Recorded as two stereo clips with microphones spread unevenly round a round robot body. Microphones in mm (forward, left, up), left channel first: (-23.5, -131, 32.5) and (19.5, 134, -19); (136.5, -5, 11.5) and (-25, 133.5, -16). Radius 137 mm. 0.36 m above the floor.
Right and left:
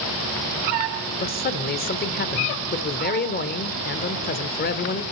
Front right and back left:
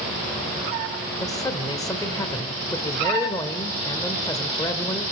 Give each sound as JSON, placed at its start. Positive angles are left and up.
{"t": 1.2, "sound": "a man speaking", "azimuth_deg": -110, "distance_m": 1.3}